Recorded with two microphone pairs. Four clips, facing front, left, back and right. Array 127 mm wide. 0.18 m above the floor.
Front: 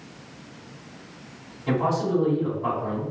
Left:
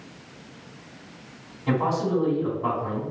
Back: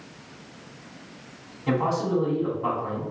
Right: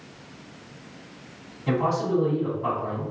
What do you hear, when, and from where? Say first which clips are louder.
1.7 s a man speaking: even, front 1 dB; 165° right, 1.8 m